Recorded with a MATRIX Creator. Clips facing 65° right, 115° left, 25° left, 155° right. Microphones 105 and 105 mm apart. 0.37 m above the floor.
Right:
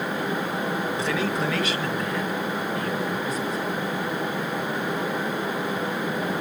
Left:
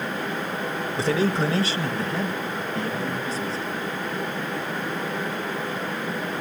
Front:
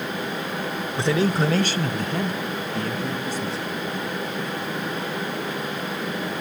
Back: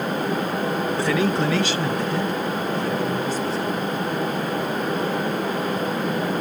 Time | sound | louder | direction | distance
1.0 | a man speaking | left 8 dB, front 2 dB | 80° left | 1.0 m